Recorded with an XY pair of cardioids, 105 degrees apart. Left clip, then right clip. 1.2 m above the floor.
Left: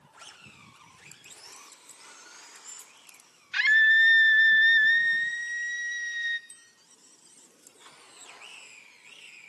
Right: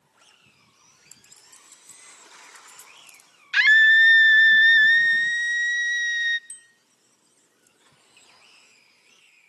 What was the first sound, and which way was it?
A clink, 25° right.